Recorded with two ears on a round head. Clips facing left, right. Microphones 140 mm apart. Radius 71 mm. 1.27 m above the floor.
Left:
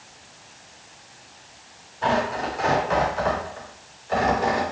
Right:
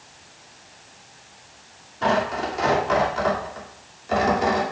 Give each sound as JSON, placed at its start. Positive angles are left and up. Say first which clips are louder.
{"t": 2.0, "sound": "tearing paper", "louder": "right 1 dB", "side_deg": -85, "distance_m": 2.5}